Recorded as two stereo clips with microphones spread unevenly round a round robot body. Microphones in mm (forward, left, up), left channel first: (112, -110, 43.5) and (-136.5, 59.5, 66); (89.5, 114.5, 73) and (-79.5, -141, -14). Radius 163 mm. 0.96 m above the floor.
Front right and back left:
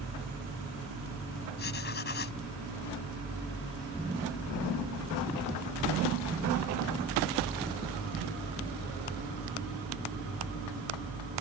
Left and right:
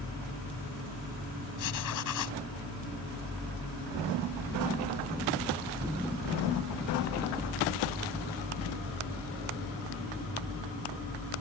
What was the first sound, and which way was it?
Writing, 25° left.